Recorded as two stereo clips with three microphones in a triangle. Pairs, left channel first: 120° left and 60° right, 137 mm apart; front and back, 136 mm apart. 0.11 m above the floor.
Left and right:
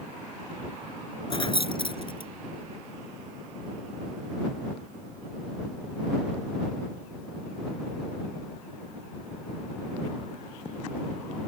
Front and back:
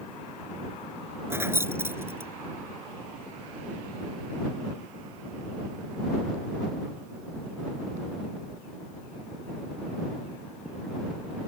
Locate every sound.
1.3 s keys jangling: 120° left